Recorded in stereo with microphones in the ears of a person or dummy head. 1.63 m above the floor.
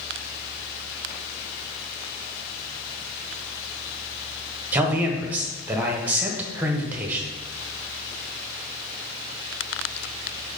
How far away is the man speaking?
About 1.1 m.